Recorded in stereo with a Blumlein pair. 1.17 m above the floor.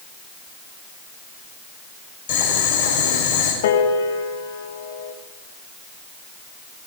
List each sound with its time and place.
2.3 s boiling: 55° left, 5.5 m
3.6 s a piano: 55° left, 1.7 m